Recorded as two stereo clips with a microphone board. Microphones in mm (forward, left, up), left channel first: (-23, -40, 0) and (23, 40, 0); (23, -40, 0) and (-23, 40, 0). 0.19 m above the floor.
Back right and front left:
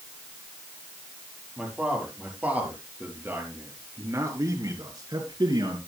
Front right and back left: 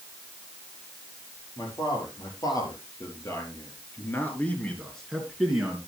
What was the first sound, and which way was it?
A man speaking, 20° right.